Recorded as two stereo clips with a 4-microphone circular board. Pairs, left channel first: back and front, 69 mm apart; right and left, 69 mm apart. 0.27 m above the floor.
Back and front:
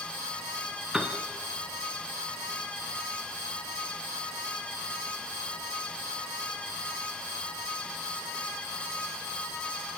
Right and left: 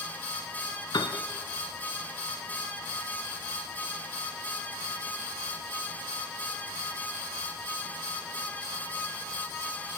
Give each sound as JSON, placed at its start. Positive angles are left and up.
{"t": 0.9, "sound": "a piano", "azimuth_deg": -80, "distance_m": 2.0}